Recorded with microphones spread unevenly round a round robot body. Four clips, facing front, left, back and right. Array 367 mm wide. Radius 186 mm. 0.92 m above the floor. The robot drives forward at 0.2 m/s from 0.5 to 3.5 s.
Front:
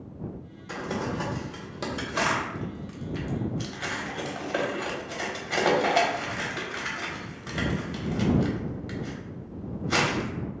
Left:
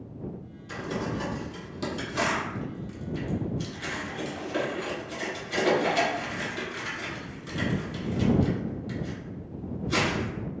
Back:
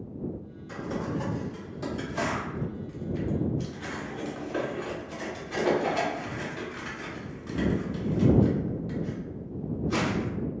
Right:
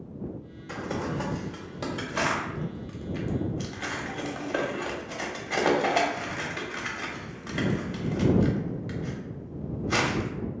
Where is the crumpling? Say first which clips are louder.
Even, front 1 dB; 25° right, 1.2 m; by 10.3 s 60° right, 0.9 m.